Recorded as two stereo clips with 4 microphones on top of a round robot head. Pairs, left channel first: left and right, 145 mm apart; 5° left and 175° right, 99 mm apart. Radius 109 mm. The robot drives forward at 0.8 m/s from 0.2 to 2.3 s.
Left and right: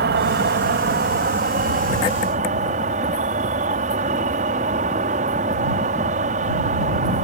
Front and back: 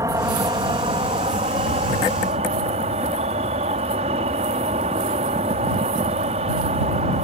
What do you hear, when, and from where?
0.0 s an insect: 110° right; by 7.2 s 140° right